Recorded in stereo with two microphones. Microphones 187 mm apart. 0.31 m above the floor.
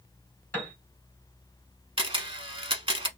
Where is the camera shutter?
30° right (ahead or behind), 0.6 m.